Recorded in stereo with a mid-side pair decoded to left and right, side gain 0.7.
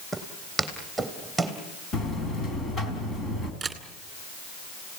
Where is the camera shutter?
20° right, 2 m.